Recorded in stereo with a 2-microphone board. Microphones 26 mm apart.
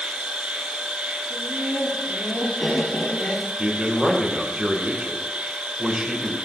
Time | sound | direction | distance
0.0 | an insect | 60° right (ahead or behind) | 1.8 m
1.3 | laughter | 50° left (ahead or behind) | 7 m
3.6 | a man speaking | 25° right (ahead or behind) | 1.9 m